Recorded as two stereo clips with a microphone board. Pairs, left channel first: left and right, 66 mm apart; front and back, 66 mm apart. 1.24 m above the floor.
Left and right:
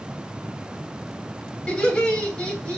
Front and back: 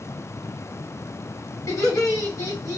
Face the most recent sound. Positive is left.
turn(degrees=15)